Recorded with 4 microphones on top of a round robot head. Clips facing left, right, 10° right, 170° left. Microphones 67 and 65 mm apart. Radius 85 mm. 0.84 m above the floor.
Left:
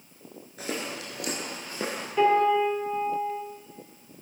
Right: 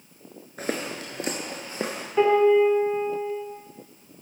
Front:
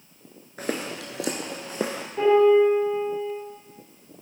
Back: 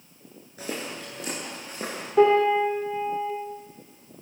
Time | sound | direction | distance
0.6 | footsteps | 45° right | 0.8 m
2.2 | a piano | 165° right | 3.5 m